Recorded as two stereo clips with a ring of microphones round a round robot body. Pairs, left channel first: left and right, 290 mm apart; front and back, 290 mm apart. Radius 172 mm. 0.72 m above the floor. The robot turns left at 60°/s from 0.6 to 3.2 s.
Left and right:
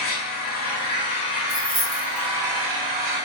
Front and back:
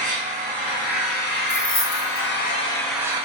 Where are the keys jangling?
15° right, 1.3 m; by 2.3 s 60° right, 1.3 m.